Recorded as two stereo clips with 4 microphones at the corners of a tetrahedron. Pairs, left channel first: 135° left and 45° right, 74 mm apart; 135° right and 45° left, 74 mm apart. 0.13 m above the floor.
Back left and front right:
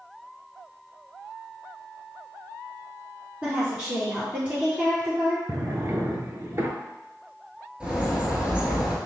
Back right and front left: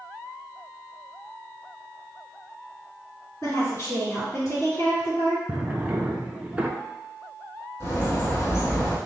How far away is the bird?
About 0.9 m.